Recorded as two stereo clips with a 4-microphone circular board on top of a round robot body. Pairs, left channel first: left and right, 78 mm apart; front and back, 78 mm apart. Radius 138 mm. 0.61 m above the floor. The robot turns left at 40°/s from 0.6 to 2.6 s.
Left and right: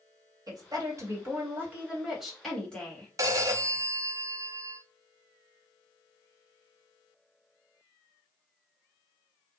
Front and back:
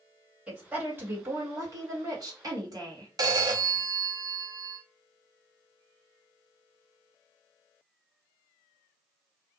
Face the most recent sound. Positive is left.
turn(degrees=-140)